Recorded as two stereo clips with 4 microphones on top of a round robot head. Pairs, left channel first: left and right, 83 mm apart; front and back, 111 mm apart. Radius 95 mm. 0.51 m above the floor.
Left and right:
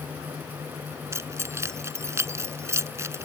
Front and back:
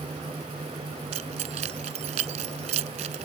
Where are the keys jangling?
145° right.